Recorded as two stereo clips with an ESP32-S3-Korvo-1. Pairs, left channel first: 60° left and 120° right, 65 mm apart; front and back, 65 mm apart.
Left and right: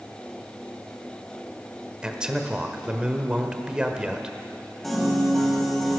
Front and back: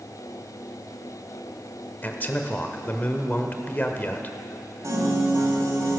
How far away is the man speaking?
About 1.1 m.